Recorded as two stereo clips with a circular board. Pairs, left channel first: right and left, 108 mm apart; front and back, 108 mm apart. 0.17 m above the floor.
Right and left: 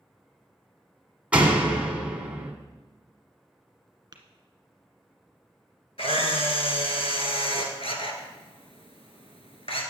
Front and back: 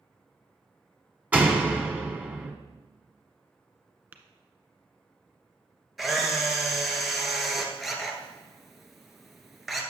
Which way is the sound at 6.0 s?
90° right.